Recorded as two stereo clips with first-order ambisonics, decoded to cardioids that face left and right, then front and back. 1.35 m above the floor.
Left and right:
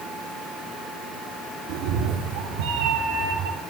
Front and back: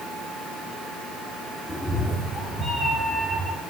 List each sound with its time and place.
1.7 s a cat meowing: 90° right, 1.9 m